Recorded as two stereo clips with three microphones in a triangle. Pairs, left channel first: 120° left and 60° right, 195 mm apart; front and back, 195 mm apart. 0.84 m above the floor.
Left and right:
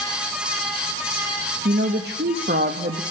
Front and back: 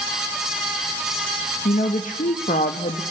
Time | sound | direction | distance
1.6 | a woman speaking | 45° right | 0.7 m